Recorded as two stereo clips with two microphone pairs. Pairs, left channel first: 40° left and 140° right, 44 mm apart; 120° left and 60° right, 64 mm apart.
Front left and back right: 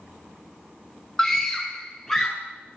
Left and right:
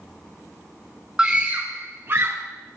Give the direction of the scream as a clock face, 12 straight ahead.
12 o'clock.